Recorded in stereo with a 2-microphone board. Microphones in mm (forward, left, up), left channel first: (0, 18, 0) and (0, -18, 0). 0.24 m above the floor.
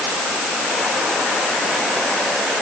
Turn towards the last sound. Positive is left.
No sound to turn to.